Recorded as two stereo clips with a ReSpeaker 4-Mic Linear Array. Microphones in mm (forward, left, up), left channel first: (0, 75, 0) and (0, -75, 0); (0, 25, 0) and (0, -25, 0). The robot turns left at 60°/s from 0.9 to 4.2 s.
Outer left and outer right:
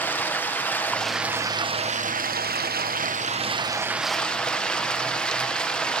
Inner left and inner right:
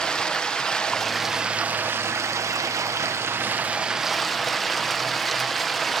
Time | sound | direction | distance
0.0 | running water | 10° left | 0.9 m